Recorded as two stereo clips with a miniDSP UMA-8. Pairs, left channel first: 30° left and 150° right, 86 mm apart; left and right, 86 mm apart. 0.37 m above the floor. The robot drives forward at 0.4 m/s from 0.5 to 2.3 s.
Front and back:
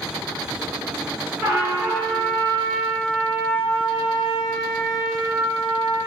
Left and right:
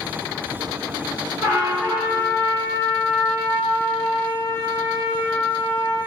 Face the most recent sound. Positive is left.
turn(degrees=-135)